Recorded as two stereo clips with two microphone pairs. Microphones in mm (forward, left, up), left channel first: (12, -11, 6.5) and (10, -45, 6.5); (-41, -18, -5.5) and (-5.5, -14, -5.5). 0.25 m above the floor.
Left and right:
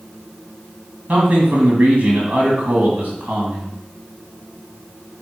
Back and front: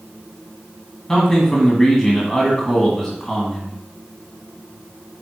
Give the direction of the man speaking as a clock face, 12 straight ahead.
3 o'clock.